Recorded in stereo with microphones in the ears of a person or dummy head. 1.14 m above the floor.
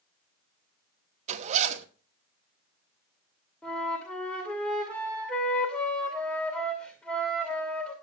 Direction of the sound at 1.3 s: 35° right (ahead or behind).